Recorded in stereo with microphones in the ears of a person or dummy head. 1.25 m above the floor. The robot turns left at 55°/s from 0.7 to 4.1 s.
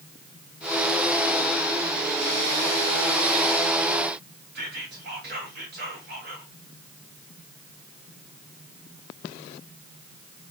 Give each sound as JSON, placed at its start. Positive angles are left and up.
{"t": 4.5, "sound": "whispering", "side_deg": -50, "distance_m": 0.7}